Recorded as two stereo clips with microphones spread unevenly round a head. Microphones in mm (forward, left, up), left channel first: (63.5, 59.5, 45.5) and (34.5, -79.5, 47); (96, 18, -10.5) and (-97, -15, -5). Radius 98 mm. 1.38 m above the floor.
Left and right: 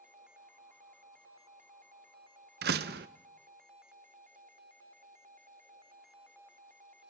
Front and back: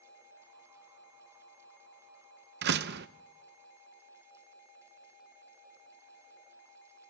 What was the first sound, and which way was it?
A door slam, 130° right.